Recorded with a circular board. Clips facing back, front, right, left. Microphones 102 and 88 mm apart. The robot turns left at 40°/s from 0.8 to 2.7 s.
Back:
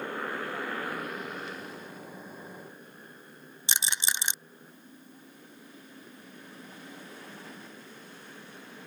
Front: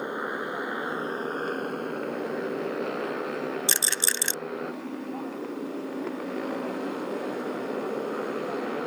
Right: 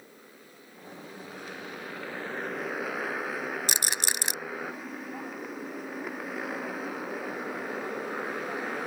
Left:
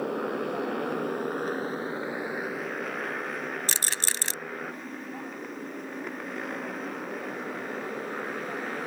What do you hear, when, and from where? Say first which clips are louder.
0.0 s a motorcycle: front 4 dB, left 23 dB; 70° left; by 8.9 s 5° right
3.7 s a rattle: front 3 dB, right 1 dB; 135° right